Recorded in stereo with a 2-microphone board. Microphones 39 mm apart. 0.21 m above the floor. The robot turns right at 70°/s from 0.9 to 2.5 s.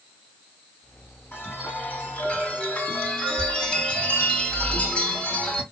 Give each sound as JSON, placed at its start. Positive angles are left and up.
{"t": 1.3, "sound": "a chime", "azimuth_deg": 70, "distance_m": 2.5}